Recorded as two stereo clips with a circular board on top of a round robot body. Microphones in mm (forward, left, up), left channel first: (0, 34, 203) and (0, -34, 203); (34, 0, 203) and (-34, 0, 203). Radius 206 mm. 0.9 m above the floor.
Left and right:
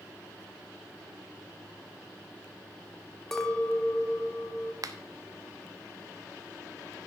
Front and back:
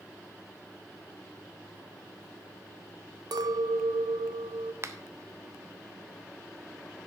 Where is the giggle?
No giggle in this recording.